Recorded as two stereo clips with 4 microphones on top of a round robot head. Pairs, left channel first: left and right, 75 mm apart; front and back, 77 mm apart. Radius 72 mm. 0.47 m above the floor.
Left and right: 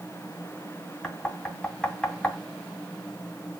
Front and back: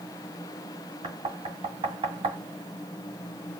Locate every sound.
1.0 s knocking: 170° left, 2.5 m